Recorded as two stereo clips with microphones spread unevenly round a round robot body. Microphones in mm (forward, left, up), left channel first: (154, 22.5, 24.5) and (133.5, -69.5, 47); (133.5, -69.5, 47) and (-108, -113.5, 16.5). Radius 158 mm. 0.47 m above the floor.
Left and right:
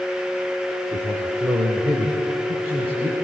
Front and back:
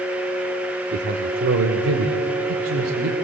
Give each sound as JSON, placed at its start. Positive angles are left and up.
{"t": 0.9, "sound": "a man speaking", "azimuth_deg": 170, "distance_m": 1.2}